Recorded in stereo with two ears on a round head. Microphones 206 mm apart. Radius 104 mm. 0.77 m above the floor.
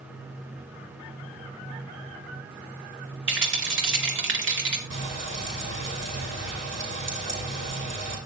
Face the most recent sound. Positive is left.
turn(degrees=-55)  # may be behind; listen again after turning